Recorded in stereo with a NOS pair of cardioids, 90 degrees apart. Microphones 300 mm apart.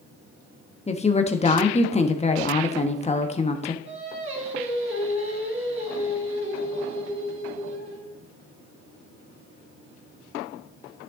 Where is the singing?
40° right, 4.5 m.